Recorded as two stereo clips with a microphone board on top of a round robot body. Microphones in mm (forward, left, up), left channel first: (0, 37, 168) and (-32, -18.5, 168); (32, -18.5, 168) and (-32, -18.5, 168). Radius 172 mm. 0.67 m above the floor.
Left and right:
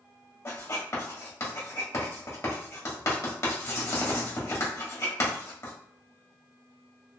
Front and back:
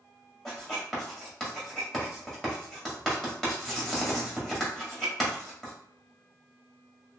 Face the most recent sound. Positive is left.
turn(degrees=80)